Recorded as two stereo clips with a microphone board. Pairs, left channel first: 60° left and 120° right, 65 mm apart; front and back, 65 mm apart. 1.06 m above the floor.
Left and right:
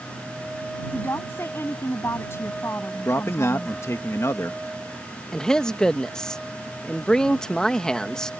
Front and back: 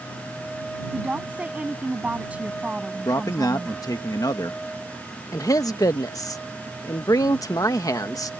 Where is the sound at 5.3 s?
20° right.